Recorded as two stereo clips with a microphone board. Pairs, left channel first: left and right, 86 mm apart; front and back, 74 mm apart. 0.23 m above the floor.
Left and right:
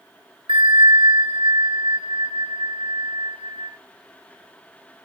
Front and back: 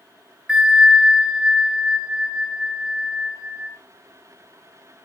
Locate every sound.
0.5 s a bell: 100° right, 1.5 m